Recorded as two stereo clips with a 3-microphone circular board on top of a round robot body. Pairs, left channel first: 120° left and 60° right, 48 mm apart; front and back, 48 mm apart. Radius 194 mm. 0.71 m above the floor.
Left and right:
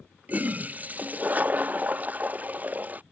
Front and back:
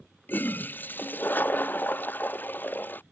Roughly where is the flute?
I don't hear a flute.